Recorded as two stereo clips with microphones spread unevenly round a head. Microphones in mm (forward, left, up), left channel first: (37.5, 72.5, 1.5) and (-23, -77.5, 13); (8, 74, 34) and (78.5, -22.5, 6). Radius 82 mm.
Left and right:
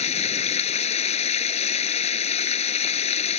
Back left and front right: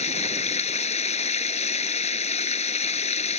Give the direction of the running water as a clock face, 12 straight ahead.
8 o'clock.